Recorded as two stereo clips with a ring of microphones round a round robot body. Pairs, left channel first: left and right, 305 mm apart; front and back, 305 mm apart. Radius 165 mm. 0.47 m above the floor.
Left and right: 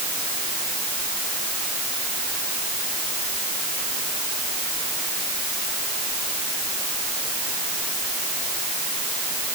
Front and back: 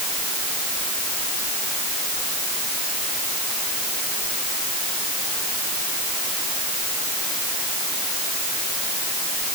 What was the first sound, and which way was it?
Only background noise.